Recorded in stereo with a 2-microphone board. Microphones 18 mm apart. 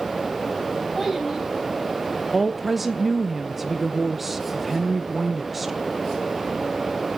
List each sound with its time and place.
0.9 s a child speaking: centre (ahead or behind), 4 m
2.3 s a woman speaking: 10° right (ahead or behind), 0.7 m